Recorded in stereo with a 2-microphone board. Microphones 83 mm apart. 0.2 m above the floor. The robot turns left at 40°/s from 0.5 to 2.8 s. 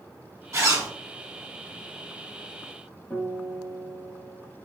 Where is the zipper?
40° right (ahead or behind), 1.1 m; by 0.9 s 45° right (ahead or behind), 1.1 m.